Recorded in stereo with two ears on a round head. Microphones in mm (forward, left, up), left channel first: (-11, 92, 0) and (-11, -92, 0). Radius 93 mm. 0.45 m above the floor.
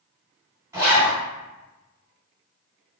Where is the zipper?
15° right (ahead or behind), 1.7 m.